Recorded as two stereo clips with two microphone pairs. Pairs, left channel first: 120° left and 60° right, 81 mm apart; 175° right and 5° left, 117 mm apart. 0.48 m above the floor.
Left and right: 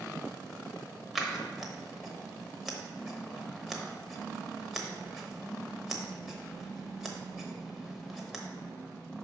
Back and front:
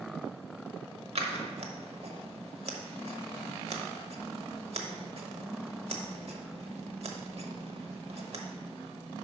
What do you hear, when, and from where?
1.1 s scissors: 25° left, 1.0 m